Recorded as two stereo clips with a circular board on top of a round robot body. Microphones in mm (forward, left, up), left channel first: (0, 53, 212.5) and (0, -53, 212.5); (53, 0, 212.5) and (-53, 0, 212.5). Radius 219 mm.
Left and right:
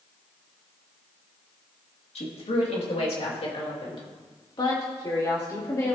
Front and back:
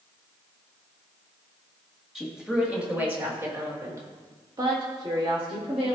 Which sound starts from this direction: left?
A woman speaking, at 2.1 s.